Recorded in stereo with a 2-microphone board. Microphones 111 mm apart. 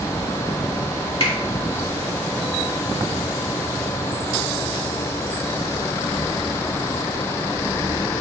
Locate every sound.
1.2 s a finger snap: 55° left (ahead or behind), 2 m